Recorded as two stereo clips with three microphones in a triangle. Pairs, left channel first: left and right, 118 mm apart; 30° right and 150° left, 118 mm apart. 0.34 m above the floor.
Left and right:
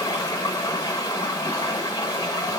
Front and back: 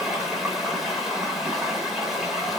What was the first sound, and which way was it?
Running water, 65° left.